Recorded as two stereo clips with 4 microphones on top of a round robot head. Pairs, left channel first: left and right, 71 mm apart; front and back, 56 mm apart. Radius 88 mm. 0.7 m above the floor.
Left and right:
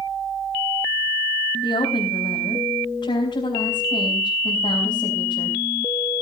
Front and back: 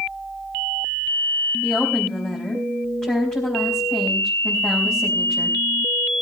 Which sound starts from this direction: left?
A woman speaking, at 1.6 s.